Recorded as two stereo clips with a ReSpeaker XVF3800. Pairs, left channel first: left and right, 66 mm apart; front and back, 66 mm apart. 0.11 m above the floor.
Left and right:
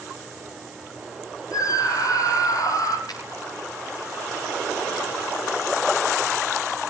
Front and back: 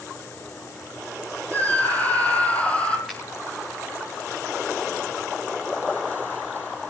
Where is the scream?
65° left, 5 m; by 3.0 s 70° left, 4 m.